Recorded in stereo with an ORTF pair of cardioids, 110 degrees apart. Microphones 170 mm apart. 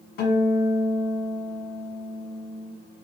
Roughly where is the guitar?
Left.